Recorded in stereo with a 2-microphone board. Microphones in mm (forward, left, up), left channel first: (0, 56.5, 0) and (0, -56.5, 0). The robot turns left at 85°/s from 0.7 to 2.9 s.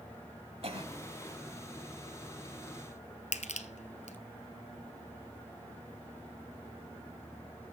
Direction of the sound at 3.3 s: 80° left.